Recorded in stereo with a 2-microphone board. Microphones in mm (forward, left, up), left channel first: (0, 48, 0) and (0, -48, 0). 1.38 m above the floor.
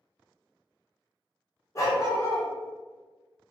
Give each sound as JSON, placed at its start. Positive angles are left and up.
{"t": 1.8, "sound": "a dog barking", "side_deg": 30, "distance_m": 0.9}